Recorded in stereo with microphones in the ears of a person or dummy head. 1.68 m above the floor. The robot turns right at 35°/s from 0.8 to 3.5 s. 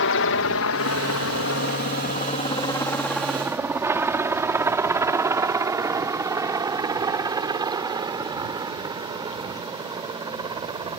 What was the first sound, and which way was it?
A helicopter, 60° left (ahead or behind).